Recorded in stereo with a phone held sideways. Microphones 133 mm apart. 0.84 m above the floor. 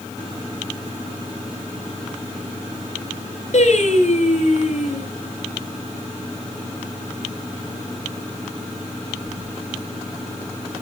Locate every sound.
3.5 s singing: 60° left (ahead or behind), 2.5 m